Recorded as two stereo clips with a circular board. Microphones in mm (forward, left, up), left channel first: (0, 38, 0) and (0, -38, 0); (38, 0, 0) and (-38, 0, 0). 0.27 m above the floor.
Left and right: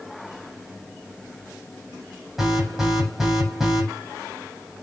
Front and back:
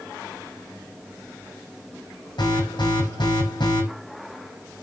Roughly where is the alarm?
Ahead.